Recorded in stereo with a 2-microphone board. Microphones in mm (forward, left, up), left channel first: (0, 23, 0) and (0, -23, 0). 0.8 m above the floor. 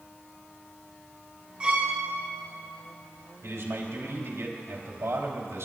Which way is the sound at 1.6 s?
20° right (ahead or behind).